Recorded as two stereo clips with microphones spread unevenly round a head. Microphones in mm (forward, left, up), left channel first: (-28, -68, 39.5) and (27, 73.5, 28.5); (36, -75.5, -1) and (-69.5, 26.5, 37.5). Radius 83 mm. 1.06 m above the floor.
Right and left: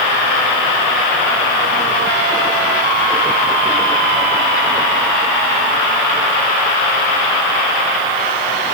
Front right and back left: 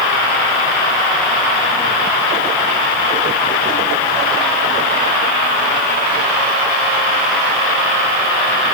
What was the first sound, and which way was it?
Only background noise.